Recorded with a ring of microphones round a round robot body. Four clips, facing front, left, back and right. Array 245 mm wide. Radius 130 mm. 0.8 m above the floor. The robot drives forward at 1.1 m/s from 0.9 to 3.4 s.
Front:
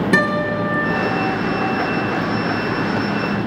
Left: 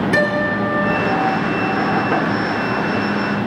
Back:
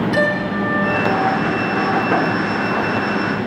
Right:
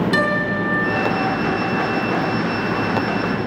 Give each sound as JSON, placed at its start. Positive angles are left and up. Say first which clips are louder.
{"t": 0.1, "sound": "a guitar", "louder": "left 2 dB, even", "azimuth_deg": -15, "distance_m": 4.0}